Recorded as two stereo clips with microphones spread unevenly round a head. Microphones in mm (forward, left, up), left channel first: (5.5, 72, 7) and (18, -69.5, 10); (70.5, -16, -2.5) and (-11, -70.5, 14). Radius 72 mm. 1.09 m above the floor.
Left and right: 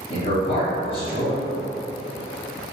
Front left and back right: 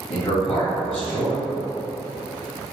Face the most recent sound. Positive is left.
turn(degrees=50)